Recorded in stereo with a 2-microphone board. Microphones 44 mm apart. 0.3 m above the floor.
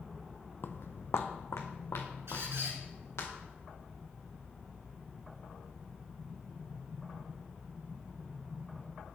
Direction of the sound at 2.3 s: 75° right (ahead or behind).